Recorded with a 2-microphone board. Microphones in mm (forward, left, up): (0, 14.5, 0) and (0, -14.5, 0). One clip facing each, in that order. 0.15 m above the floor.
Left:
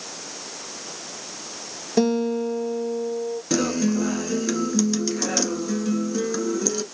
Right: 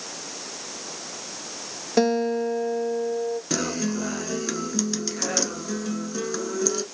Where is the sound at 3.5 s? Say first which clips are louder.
Left 4 dB; centre (ahead or behind), 1.3 m.